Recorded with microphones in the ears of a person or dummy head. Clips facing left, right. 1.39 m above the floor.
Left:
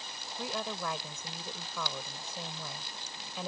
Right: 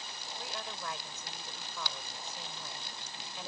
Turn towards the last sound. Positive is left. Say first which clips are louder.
# left 7 dB
turn(degrees=75)  # may be behind; listen again after turning